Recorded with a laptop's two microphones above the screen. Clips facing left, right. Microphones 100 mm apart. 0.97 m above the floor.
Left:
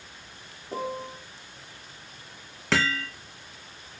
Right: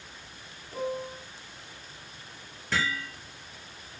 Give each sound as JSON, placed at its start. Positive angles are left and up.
{"t": 0.7, "sound": "a piano", "side_deg": 75, "distance_m": 2.5}
{"t": 2.7, "sound": "hammering", "side_deg": 75, "distance_m": 2.0}